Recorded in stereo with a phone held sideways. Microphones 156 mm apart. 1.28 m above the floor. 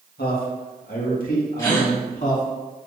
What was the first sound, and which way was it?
A man speaking, 75° left (ahead or behind).